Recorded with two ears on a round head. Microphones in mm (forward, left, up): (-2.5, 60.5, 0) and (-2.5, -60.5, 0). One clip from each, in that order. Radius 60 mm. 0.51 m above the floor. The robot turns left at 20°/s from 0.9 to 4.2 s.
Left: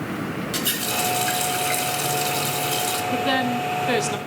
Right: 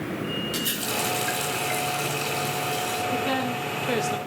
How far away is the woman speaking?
About 0.9 m.